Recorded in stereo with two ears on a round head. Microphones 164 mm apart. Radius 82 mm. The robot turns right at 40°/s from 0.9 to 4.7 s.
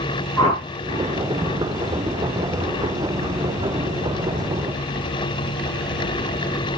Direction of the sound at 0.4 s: 20° left (ahead or behind).